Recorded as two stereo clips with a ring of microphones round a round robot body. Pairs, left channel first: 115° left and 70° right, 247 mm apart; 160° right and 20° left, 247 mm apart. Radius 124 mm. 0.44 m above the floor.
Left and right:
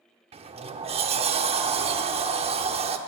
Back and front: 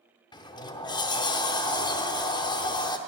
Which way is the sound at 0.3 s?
105° right.